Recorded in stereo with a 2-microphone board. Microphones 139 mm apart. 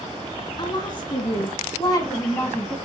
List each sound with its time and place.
0.6 s a woman speaking: 35° left (ahead or behind), 1.7 m; by 2.8 s 15° left (ahead or behind), 1.2 m